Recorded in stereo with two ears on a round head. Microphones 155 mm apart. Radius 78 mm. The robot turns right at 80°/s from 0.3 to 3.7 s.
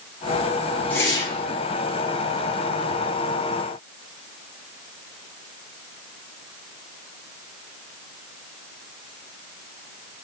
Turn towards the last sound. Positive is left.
turn(degrees=-125)